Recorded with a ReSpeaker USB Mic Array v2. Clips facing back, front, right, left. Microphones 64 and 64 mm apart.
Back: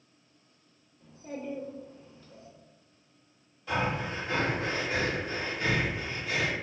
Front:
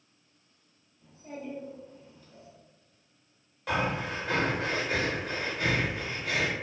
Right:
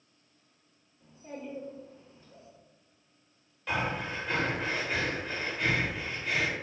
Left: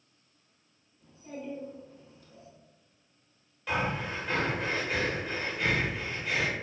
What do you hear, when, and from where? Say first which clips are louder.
1.0 s a child speaking: back 2 dB, left 1 dB; 145° right, 0.9 m
3.7 s breathing: front 1 dB, left 1 dB; 5° left, 0.8 m